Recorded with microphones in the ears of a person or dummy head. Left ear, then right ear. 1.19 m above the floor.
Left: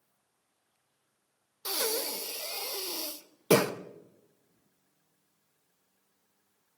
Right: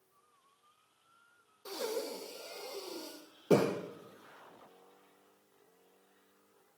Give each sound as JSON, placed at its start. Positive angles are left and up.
{"t": 1.6, "sound": "breathing", "side_deg": 65, "distance_m": 1.1}